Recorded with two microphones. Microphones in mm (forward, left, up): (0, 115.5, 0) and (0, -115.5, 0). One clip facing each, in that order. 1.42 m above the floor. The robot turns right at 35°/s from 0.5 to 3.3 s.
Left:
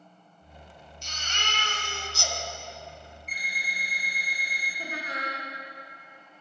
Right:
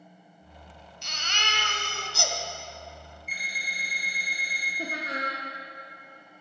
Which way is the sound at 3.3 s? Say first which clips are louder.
Even; 5° right (ahead or behind).